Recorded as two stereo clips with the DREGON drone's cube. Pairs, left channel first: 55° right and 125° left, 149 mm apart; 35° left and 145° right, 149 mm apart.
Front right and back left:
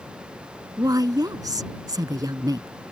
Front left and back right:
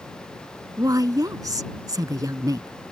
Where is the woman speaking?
170° left.